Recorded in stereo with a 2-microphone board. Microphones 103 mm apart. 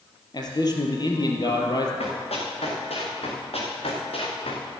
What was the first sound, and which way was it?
A man speaking, 40° left (ahead or behind).